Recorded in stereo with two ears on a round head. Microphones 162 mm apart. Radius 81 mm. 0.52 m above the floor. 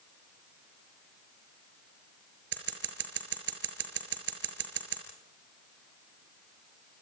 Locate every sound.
2.5 s scissors: 70° right (ahead or behind), 5 m